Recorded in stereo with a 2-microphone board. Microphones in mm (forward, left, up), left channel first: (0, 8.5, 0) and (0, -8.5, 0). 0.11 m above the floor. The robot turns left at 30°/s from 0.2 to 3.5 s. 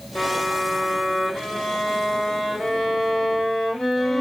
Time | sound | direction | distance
0.1 | a violin | 135° left | 2 m